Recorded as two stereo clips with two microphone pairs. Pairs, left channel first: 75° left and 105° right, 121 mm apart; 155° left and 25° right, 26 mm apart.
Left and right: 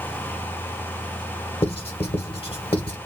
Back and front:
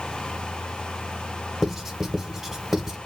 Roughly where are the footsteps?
No footsteps in this recording.